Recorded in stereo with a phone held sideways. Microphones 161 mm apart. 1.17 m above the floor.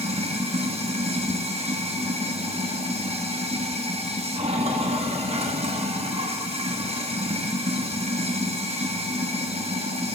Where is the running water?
40° right (ahead or behind), 0.9 m.